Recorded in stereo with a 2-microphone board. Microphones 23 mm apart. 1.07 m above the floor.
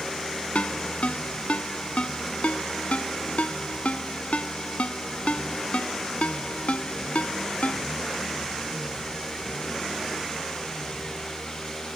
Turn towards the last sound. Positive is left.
turn(degrees=70)  # may be behind; listen again after turning